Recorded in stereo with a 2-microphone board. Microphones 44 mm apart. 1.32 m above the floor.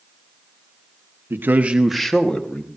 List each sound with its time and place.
1.3 s a man speaking: 60° right (ahead or behind), 1.0 m; by 2.7 s 30° left (ahead or behind), 1.9 m